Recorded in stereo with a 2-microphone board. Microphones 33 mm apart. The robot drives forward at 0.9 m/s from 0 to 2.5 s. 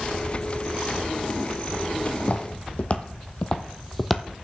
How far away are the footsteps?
About 1.8 m.